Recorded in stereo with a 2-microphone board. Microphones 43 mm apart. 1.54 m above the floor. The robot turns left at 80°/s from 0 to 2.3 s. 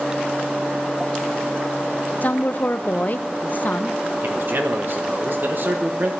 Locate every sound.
2.2 s a woman speaking: 40° left (ahead or behind), 0.7 m; by 4.0 s 45° left (ahead or behind), 0.7 m
4.2 s a man speaking: 55° right (ahead or behind), 1.4 m